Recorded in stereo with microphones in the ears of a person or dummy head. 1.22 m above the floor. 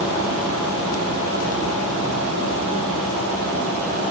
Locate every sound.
Only background noise.